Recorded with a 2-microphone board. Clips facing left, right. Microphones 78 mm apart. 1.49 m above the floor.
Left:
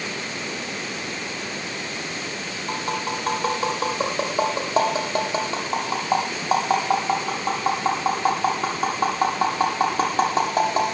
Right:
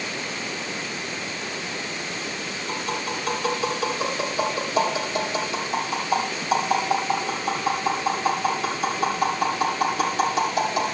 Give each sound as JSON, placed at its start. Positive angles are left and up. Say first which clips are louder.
{"t": 2.7, "sound": "tapping", "louder": "left 3 dB", "side_deg": 40, "distance_m": 8.0}